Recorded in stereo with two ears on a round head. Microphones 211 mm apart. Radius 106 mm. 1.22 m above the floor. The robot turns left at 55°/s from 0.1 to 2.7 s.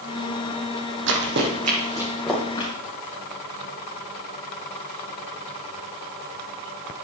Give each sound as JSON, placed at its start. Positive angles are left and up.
{"t": 1.1, "sound": "running footsteps", "side_deg": -55, "distance_m": 2.0}